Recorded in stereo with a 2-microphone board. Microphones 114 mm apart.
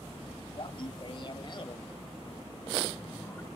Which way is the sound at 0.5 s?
50° left (ahead or behind).